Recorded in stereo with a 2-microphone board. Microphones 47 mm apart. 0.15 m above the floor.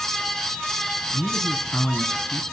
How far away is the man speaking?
About 1.9 m.